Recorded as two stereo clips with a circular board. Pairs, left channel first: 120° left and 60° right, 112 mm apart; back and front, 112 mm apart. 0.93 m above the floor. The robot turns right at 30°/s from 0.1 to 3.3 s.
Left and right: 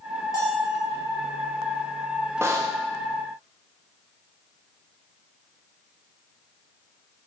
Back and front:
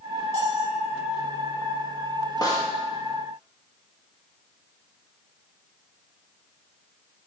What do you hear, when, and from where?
0.3 s a bell: straight behind, 2.5 m; by 0.8 s 170° right, 2.5 m
2.4 s a snare drum: 125° right, 1.0 m; by 2.7 s 115° right, 1.0 m